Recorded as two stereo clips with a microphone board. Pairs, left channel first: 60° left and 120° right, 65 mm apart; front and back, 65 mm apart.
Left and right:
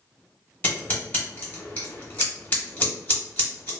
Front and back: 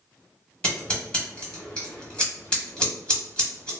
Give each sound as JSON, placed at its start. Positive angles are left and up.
{"t": 0.6, "sound": "scissors", "azimuth_deg": 45, "distance_m": 1.3}